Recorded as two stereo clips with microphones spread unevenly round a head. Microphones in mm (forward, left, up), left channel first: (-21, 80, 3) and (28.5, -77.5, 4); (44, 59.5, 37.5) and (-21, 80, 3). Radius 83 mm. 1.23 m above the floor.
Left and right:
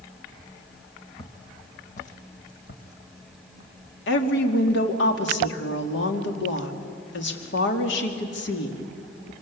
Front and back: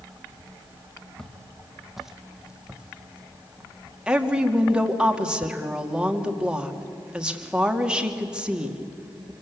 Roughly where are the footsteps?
Ahead left.